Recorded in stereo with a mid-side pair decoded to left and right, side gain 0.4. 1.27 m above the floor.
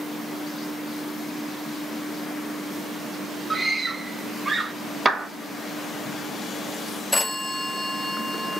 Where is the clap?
25° right, 1.5 m.